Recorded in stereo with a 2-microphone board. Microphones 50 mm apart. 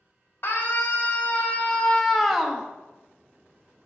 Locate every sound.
0.4 s a scream: 55° left (ahead or behind), 1.3 m; by 2.7 s 15° right (ahead or behind), 0.8 m